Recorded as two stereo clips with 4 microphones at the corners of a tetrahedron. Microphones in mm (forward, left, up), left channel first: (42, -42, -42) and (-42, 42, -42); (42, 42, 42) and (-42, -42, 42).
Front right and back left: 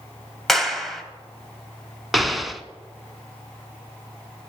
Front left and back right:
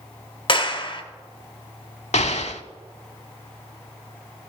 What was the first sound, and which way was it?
A clap, 45° left.